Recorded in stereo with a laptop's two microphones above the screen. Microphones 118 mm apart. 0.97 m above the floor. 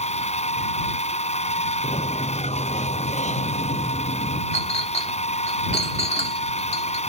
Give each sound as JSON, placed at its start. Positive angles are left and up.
{"t": 0.0, "sound": "a machine running", "side_deg": 65}
{"t": 1.8, "sound": "a sliding door", "side_deg": 75}
{"t": 4.5, "sound": "a clink", "side_deg": 60}